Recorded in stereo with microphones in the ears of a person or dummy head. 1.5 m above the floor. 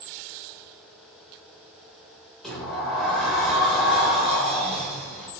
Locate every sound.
2.4 s a sliding door: centre (ahead or behind), 1.6 m